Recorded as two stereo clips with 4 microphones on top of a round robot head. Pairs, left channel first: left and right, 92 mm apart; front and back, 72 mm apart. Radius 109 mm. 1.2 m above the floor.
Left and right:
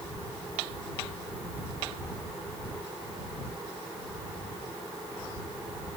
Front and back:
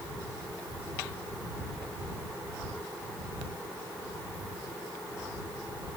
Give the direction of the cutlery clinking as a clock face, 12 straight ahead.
No cutlery clinking in this recording.